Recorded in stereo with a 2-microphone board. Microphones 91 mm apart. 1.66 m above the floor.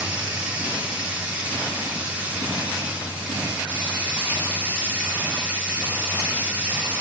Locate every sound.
0.0 s running water: 15° right (ahead or behind), 1.1 m